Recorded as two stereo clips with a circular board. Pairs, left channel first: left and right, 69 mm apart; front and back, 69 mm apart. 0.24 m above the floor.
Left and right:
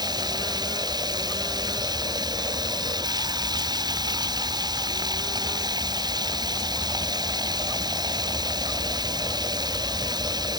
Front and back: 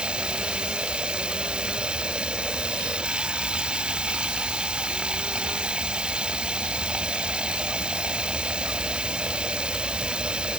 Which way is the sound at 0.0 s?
105° right.